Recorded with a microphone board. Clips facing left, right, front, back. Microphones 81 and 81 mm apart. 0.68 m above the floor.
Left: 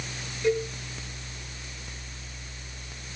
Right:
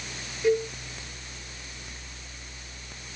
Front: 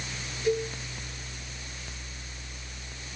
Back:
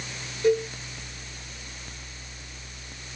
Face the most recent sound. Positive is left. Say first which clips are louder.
# right 2 dB, back 5 dB
turn(degrees=-175)